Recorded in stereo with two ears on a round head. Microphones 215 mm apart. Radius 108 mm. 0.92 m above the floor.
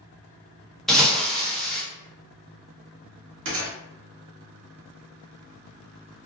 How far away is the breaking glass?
About 0.6 m.